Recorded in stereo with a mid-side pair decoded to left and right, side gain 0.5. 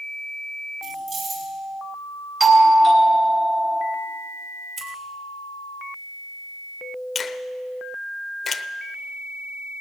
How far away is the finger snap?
About 0.8 m.